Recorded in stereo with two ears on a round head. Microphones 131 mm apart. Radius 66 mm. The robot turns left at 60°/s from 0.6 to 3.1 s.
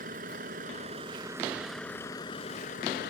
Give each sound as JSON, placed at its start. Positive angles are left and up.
{"t": 0.0, "sound": "a vehicle", "azimuth_deg": -115}